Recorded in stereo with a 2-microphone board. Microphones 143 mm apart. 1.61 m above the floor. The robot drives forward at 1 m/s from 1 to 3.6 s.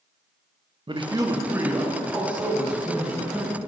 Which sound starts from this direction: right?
A man speaking, at 0.9 s.